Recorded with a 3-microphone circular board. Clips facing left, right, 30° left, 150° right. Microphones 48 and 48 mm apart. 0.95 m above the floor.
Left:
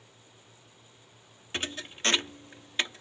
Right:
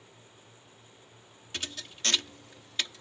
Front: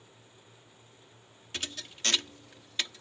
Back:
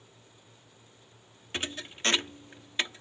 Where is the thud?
150° left.